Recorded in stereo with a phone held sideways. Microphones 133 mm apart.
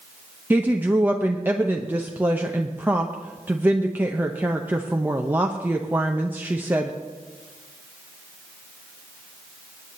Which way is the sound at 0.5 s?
15° right (ahead or behind).